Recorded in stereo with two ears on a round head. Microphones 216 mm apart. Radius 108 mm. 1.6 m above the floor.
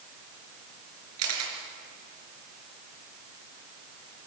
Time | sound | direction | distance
1.2 | a camera shutter | 70° right (ahead or behind) | 4.5 m